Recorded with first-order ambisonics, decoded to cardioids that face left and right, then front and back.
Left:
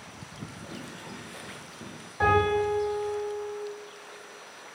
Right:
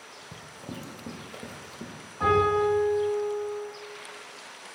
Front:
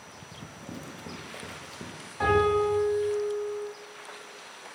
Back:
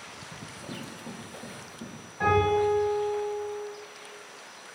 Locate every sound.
0.3 s running footsteps: 90° right, 1.2 m; by 1.9 s 20° right, 0.8 m
2.2 s a piano: 70° left, 1.7 m